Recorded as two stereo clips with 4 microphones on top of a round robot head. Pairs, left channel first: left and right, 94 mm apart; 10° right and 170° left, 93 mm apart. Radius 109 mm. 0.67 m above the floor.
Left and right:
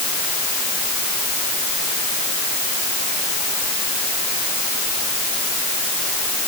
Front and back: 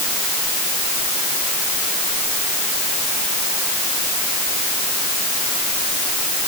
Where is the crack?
I don't hear a crack.